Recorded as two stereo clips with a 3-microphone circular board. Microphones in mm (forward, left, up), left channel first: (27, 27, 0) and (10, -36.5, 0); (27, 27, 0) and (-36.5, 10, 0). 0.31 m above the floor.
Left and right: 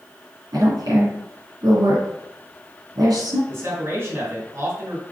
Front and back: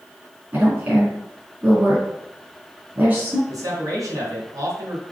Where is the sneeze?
No sneeze in this recording.